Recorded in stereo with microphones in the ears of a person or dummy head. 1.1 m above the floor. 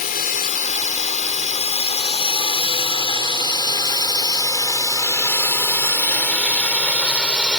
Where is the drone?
45° left (ahead or behind); by 7.6 s 5° left (ahead or behind).